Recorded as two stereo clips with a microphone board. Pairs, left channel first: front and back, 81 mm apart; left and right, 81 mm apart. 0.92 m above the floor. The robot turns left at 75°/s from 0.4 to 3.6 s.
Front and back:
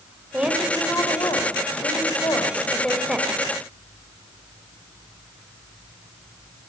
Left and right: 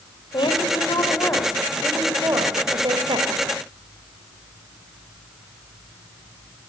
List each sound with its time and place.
0.3 s a woman speaking: 100° left, 4 m; by 3.3 s 115° right, 4 m